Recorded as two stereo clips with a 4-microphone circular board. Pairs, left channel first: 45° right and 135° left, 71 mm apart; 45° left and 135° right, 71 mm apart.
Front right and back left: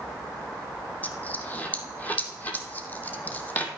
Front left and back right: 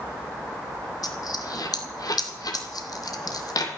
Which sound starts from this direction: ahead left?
A dropped coin, at 1.0 s.